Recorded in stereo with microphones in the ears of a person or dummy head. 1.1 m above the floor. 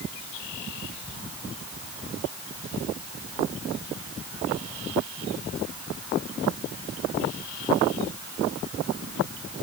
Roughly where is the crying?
I don't hear crying.